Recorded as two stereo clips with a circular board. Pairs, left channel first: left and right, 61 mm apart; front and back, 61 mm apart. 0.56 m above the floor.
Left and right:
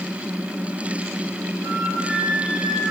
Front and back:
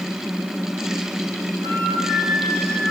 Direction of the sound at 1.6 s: 175° left.